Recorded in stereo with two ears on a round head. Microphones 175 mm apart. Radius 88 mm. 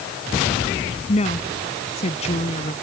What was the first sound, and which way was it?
A woman speaking, 35° left (ahead or behind).